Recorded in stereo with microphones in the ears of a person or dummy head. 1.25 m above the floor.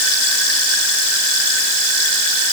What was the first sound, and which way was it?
Only background noise.